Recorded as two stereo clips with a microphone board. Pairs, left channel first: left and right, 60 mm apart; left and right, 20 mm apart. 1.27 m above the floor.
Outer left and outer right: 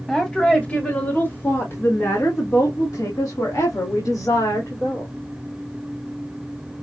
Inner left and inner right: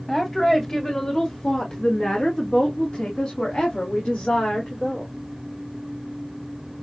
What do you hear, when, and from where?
0.1 s a woman speaking: 10° left (ahead or behind), 1.4 m; by 5.1 s 80° left, 2.5 m